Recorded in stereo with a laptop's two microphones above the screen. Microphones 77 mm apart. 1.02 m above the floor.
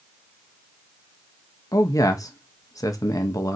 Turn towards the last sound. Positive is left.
turn(degrees=50)  # may be behind; listen again after turning